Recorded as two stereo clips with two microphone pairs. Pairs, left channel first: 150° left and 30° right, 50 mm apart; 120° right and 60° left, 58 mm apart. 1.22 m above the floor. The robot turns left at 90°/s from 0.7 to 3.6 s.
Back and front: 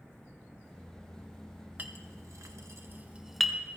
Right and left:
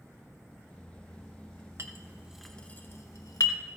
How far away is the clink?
About 0.8 m.